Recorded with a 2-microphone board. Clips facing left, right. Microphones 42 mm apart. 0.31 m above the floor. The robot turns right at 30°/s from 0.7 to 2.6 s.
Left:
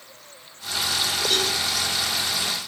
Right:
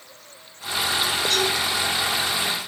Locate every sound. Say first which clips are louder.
1.3 s a cowbell: right 1 dB; 35° left (ahead or behind), 5.5 m; by 1.5 s 40° left (ahead or behind), 5.5 m